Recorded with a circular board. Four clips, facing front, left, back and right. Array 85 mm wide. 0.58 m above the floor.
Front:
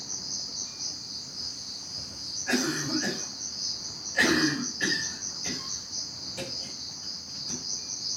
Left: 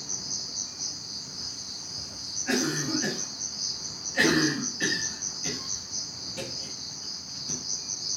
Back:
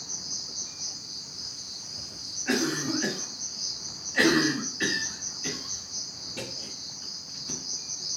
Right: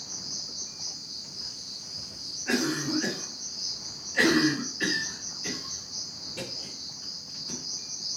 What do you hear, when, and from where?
0.0 s an insect: 80° left, 1.6 m
2.5 s a cough: 165° left, 1.5 m